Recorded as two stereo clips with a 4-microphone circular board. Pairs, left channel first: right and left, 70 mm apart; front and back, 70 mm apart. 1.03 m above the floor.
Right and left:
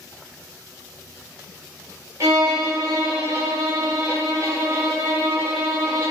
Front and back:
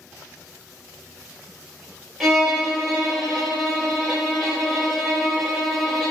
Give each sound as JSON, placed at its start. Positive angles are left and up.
{"t": 2.2, "sound": "a violin", "azimuth_deg": 100, "distance_m": 1.0}